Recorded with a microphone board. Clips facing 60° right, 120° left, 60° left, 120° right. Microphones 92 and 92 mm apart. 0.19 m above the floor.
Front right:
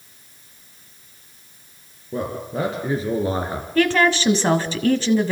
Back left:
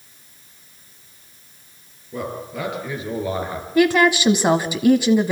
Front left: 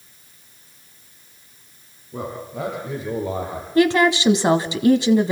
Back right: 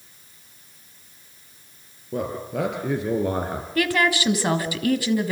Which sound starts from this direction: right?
A man speaking, at 2.1 s.